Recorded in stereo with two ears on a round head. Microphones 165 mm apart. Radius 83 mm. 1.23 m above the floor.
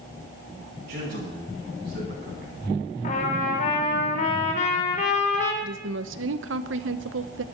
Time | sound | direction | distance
0.9 | a man speaking | 55° right (ahead or behind) | 10 m
3.0 | a trumpet | 45° left (ahead or behind) | 3 m
5.6 | a woman speaking | 70° right (ahead or behind) | 1.0 m